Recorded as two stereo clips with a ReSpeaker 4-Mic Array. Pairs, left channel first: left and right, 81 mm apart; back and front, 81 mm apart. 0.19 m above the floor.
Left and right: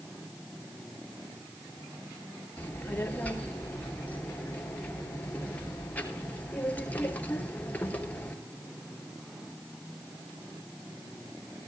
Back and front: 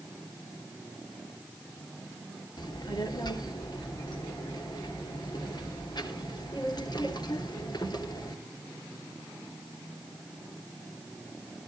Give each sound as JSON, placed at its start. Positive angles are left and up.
{"t": 2.6, "sound": "a child speaking", "azimuth_deg": 160, "distance_m": 3.0}